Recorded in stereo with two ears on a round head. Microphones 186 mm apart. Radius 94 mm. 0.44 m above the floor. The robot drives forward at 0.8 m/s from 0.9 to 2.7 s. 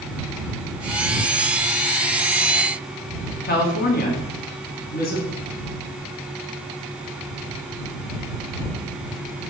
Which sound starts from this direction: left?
A woman speaking, at 3.4 s.